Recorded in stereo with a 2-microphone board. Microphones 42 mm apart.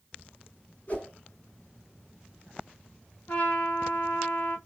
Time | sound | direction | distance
0.9 | a whoosh | 40° left (ahead or behind) | 2.5 m
3.3 | a trumpet | 40° left (ahead or behind) | 1.7 m